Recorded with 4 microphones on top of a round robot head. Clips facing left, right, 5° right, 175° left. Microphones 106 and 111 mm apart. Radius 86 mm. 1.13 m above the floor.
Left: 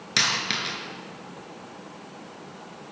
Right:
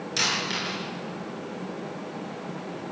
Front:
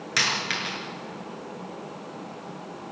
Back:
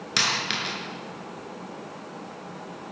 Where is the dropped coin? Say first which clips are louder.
Left 2 dB, even; 110° left, 5 m.